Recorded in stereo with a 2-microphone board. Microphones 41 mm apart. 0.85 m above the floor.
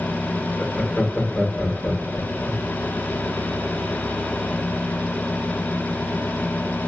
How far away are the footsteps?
No footsteps in this recording.